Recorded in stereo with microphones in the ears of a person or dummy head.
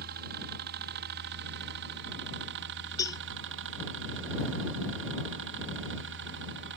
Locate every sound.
0.0 s a helicopter: 55° right (ahead or behind)
3.0 s a cowbell: 20° left (ahead or behind)